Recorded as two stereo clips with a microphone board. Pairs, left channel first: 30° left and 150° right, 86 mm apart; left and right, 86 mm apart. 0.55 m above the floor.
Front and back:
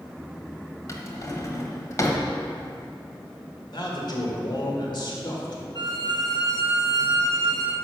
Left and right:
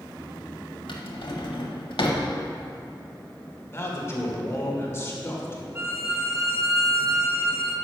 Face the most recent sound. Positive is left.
turn(degrees=-145)